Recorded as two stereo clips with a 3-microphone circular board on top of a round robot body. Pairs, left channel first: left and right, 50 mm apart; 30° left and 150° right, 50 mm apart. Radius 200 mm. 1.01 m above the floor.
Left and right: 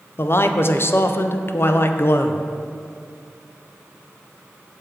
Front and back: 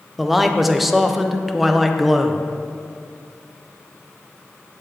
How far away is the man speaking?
About 0.6 m.